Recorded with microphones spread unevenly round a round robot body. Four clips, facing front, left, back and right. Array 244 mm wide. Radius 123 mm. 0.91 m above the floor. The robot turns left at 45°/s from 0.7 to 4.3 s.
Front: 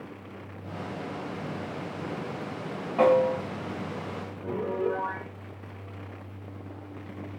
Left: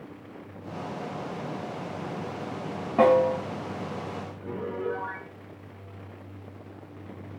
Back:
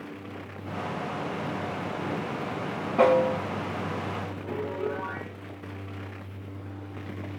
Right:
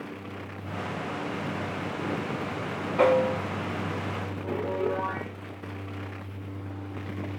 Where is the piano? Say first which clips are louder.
Right 3 dB, front 4 dB; 25° left, 8.5 m.